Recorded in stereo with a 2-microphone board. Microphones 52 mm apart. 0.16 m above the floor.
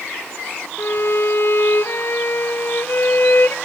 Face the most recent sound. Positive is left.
turn(degrees=55)  # may be behind; listen again after turning